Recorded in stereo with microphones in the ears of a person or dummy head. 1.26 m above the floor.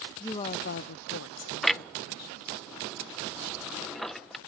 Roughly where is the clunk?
Centre.